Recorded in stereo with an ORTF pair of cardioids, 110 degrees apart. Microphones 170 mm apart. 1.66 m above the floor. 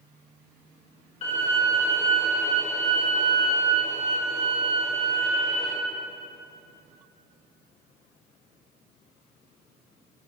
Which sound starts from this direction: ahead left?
A violin, at 1.2 s.